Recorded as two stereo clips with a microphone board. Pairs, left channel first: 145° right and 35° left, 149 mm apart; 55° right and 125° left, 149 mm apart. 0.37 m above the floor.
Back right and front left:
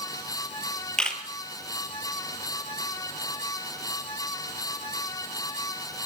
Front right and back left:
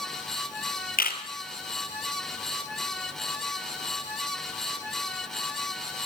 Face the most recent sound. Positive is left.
turn(degrees=-60)